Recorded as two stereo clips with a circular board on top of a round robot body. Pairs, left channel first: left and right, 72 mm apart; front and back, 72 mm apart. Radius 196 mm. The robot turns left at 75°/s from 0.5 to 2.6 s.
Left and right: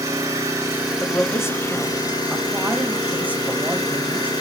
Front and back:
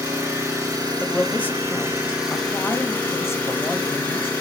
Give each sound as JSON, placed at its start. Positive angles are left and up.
{"t": 0.0, "sound": "an engine running", "azimuth_deg": -135, "distance_m": 2.5}
{"t": 1.0, "sound": "a man speaking", "azimuth_deg": 90, "distance_m": 1.1}